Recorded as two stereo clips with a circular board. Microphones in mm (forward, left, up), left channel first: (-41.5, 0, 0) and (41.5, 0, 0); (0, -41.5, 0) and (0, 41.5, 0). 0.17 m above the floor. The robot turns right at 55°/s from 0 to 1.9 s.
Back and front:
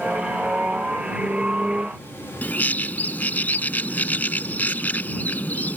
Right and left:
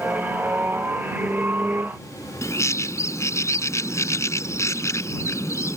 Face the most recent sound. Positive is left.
turn(degrees=-120)